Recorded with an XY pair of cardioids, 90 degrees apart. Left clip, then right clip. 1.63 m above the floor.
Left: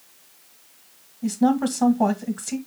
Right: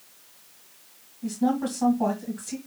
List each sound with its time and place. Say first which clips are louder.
1.2 s a woman speaking: left 5 dB; 65° left, 1.5 m